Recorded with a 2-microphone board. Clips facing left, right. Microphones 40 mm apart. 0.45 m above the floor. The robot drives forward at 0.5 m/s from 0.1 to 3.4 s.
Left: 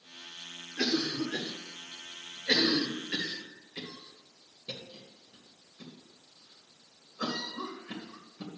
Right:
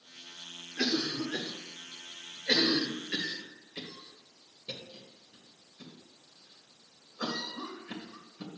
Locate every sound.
0.8 s a cough: 5° right (ahead or behind), 1.2 m; by 8.5 s centre (ahead or behind), 2 m